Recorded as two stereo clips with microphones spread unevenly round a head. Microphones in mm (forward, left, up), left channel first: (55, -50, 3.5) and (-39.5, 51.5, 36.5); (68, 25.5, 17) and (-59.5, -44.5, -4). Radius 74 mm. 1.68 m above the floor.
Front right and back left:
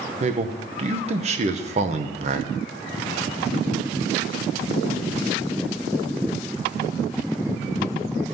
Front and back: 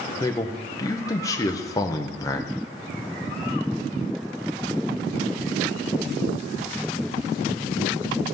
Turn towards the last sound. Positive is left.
turn(degrees=95)